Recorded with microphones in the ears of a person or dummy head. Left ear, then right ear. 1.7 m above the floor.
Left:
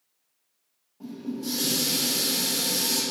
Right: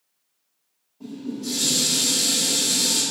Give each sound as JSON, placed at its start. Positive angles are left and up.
{"t": 1.0, "sound": "dishes clattering", "side_deg": 45, "distance_m": 1.9}